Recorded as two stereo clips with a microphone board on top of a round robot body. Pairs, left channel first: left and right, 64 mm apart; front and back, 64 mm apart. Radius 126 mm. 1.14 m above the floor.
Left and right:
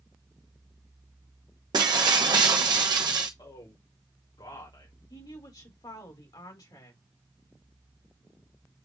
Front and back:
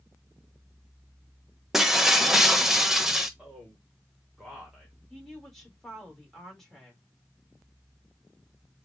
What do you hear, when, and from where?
1.7 s breaking glass: 95° right, 1.0 m
3.4 s a man speaking: 100° left, 3 m
5.1 s a woman speaking: 90° left, 2.5 m